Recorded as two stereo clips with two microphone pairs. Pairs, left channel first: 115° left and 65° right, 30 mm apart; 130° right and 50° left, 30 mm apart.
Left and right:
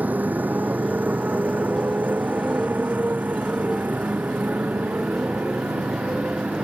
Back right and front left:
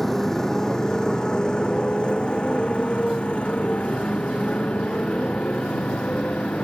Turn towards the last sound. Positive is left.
turn(degrees=-90)